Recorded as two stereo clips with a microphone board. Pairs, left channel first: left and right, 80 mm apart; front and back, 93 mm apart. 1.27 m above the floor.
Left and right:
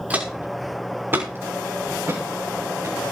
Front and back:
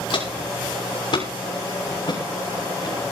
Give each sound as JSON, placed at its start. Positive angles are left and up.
{"t": 0.1, "sound": "footsteps", "azimuth_deg": -20, "distance_m": 6.0}